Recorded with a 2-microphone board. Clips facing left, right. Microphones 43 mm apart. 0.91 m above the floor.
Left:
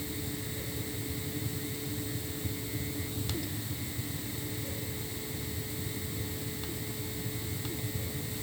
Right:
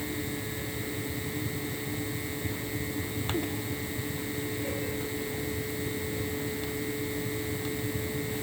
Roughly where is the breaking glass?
I don't hear breaking glass.